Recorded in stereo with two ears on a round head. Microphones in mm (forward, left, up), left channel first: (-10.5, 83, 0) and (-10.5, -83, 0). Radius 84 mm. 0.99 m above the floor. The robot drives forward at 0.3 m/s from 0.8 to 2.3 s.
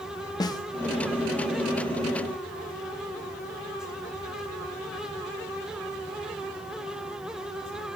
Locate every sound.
0.4 s a snare drum: 25° left (ahead or behind), 0.9 m